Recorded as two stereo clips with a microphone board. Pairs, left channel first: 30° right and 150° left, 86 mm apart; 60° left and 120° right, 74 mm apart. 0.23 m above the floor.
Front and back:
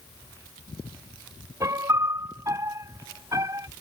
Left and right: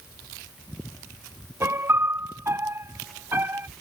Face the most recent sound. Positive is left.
turn(degrees=-170)